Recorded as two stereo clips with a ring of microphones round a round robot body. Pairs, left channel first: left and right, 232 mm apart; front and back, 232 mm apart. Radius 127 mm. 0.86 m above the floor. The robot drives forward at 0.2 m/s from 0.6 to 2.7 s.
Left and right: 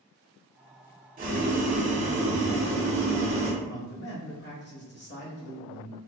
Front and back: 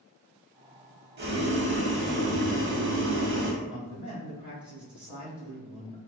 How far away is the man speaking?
About 1.2 m.